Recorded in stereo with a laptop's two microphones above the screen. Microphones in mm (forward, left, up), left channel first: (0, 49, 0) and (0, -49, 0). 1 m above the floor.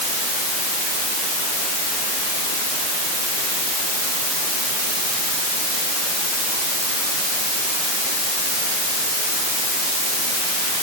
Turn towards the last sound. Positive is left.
No sound to turn to.